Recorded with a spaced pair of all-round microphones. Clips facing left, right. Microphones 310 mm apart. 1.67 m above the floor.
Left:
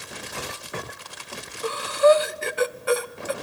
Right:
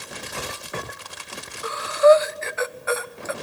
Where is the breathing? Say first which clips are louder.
Right 2 dB; 40° left (ahead or behind), 0.6 m.